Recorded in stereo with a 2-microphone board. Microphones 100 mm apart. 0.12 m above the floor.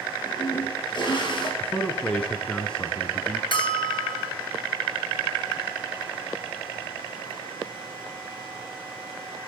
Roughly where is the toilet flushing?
Left.